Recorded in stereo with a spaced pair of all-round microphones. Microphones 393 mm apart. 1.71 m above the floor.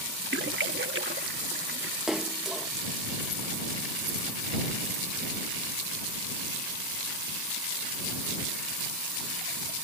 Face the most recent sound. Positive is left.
turn(degrees=0)  # may be behind; listen again after turning